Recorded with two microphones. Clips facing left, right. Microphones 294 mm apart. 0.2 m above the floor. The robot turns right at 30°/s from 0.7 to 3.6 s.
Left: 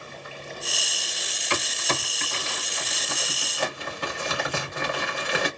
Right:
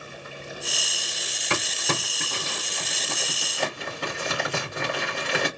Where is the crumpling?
60° right (ahead or behind), 2.0 m; by 5.5 s 20° right (ahead or behind), 2.0 m.